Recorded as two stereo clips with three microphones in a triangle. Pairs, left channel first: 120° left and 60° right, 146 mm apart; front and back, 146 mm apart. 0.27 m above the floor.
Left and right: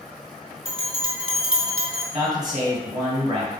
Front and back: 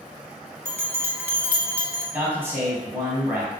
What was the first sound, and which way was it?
A bell, 110° right.